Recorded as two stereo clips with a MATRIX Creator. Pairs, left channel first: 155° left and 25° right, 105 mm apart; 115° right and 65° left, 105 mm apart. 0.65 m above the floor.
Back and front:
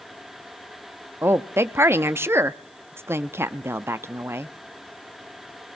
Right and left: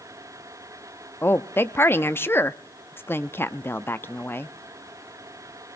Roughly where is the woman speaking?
Ahead right.